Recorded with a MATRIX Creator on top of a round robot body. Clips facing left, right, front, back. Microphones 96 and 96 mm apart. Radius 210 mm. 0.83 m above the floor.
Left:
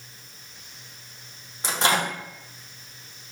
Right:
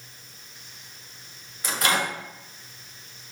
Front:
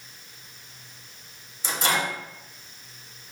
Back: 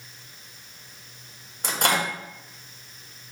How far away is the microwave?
About 1.2 m.